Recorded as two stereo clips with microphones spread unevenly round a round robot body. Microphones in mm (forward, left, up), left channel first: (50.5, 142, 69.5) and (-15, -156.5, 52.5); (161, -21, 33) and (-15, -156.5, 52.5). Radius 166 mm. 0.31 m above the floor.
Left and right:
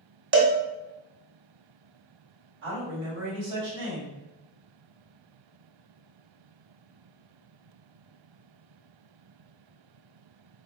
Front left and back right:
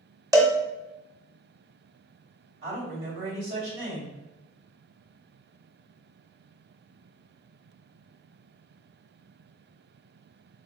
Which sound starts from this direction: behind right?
A man speaking, at 2.6 s.